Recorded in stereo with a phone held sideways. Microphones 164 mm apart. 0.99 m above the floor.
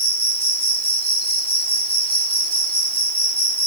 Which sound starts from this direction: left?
An insect, at 0.0 s.